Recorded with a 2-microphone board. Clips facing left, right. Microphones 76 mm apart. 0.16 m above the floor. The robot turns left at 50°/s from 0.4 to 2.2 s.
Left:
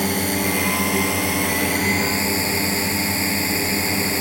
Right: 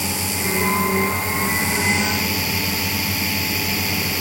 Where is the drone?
125° left; by 4.2 s 35° left.